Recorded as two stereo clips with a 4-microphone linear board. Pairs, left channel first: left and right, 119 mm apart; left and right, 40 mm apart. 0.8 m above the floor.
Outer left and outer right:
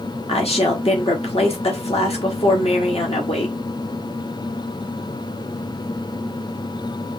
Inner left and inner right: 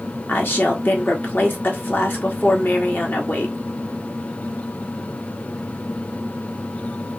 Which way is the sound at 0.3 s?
55° left (ahead or behind).